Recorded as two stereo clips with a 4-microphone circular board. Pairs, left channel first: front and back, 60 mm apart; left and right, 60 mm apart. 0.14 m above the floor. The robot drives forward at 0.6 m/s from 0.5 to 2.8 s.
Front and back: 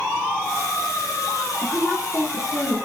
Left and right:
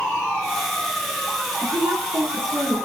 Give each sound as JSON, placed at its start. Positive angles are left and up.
{"t": 1.6, "sound": "a woman speaking", "azimuth_deg": -85, "distance_m": 6.5}